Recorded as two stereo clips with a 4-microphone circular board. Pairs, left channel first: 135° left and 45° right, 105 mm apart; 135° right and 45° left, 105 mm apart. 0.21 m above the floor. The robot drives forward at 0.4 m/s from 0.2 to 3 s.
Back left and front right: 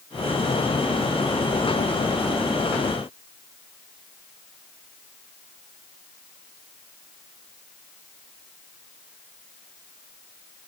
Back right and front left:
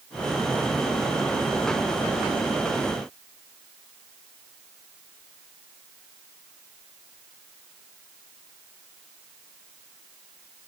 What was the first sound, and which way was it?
Only background noise.